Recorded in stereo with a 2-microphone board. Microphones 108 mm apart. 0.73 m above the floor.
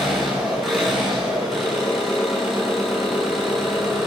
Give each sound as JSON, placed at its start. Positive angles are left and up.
{"t": 0.0, "sound": "an engine running", "side_deg": 5, "distance_m": 8.0}